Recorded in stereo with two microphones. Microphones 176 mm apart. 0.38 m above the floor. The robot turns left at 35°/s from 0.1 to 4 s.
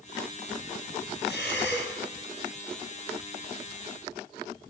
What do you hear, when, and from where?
1.2 s breathing: 70° left (ahead or behind), 2 m; by 1.9 s 85° left, 2 m